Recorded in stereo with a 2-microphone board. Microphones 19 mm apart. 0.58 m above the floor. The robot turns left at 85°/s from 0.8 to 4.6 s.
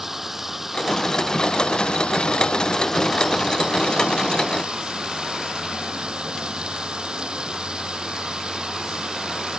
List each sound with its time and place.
0.0 s running water: 160° right; by 9.6 s 125° right